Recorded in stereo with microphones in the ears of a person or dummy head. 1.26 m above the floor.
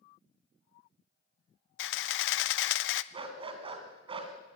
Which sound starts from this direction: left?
A camera shutter, at 1.8 s.